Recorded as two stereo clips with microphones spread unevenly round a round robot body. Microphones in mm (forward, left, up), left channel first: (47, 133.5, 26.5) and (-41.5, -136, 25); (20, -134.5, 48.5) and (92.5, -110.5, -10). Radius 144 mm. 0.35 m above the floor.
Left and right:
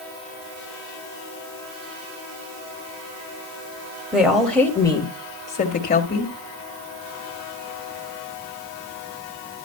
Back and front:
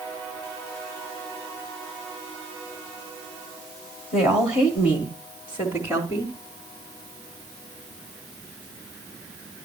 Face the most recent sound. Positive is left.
turn(degrees=115)